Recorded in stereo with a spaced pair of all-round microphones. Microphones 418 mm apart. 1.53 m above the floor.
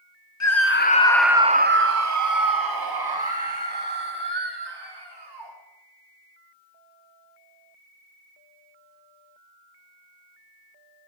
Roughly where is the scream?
Left.